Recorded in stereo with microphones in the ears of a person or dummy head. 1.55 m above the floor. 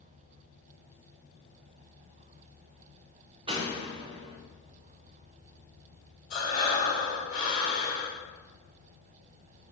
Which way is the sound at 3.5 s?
30° right (ahead or behind).